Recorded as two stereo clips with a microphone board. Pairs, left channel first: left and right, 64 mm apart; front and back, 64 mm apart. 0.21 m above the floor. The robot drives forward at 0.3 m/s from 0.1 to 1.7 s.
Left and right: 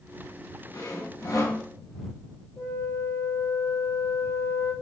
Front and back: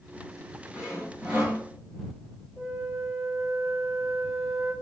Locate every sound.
0.7 s sawing: 105° left, 1.5 m; by 1.6 s 115° left, 1.6 m
2.6 s a flute: 100° left, 1.2 m